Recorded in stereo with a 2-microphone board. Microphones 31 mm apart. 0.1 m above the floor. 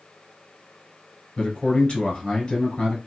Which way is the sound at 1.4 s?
35° left (ahead or behind).